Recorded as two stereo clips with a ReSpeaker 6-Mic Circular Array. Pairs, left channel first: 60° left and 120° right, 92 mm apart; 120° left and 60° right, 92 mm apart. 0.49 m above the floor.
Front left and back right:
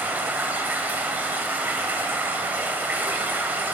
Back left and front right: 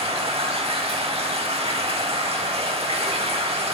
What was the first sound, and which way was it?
Running water, 50° right.